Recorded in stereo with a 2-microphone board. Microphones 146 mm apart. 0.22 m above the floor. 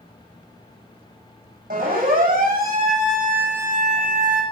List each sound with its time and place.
1.7 s a siren: 65° right (ahead or behind), 9.5 m; by 4.4 s 55° right (ahead or behind), 10 m